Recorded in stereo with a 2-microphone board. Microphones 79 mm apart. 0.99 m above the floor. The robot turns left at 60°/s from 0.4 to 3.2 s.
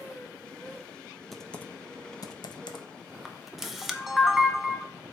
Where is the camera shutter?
5° right (ahead or behind), 0.7 m.